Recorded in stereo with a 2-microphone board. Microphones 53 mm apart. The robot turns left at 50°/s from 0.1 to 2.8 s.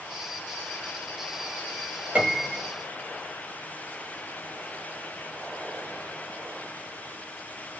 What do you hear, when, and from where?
2.1 s a piano: 20° right (ahead or behind), 1.1 m